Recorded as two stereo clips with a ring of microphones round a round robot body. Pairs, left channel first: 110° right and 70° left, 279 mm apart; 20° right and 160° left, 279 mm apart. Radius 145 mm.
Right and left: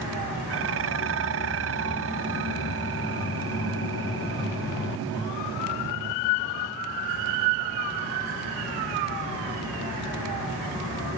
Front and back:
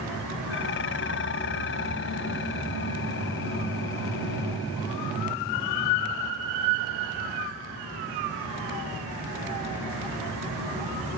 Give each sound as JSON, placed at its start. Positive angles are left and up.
{"t": 0.5, "sound": "dishes clattering", "azimuth_deg": 25}